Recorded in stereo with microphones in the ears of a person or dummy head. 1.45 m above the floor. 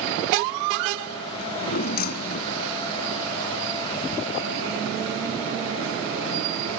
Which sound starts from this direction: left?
A drawer, at 1.4 s.